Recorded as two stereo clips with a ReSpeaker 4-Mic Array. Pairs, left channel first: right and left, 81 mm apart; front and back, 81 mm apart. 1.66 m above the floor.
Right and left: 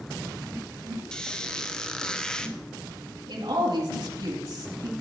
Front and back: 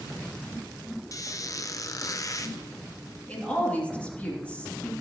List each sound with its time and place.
1.1 s a squeak: 15° right, 0.7 m
3.3 s a woman speaking: 75° left, 3 m